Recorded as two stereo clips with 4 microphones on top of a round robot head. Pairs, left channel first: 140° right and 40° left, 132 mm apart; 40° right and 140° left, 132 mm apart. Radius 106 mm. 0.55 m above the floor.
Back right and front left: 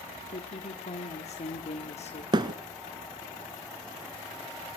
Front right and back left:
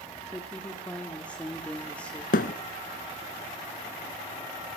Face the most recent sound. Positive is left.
turn(degrees=-20)